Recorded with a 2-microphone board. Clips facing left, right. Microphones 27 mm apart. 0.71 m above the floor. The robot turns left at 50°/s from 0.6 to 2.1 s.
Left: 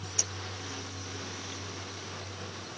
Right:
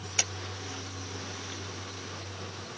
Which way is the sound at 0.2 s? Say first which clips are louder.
Right 4 dB; 55° right (ahead or behind).